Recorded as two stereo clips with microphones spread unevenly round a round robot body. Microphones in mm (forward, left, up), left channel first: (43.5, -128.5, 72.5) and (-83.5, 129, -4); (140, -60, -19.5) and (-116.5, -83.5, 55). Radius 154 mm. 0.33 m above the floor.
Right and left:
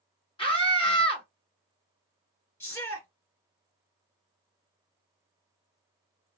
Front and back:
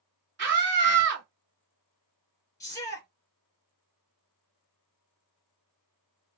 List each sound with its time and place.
0.4 s a scream: 150° right, 1.4 m
2.6 s a shout: 35° left, 1.4 m